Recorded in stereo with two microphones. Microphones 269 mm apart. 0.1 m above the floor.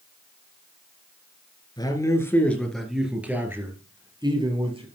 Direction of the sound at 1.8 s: 15° left (ahead or behind).